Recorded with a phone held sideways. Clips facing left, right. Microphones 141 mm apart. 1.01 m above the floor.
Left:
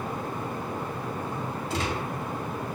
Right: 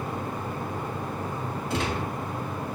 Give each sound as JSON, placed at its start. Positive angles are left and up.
{"t": 1.7, "sound": "a gunshot", "side_deg": -55, "distance_m": 1.8}